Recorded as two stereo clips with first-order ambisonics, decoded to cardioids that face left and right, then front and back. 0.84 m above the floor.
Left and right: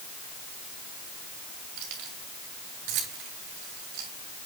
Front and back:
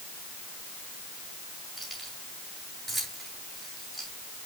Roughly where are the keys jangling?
Right.